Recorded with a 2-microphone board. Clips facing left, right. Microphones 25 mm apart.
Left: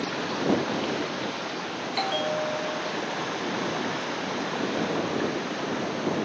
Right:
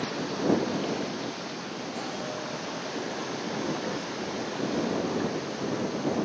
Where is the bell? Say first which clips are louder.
Left 10 dB; 70° left (ahead or behind).